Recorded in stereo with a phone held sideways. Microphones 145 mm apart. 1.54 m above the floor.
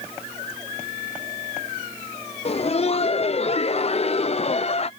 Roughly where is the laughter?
Left.